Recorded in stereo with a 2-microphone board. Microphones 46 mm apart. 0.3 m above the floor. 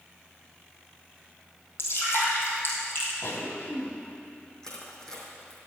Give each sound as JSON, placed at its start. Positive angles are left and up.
{"t": 1.8, "sound": "dripping", "side_deg": 55, "distance_m": 3.0}
{"t": 3.2, "sound": "a cough", "side_deg": 55, "distance_m": 2.0}
{"t": 4.6, "sound": "crushing", "side_deg": 10, "distance_m": 2.5}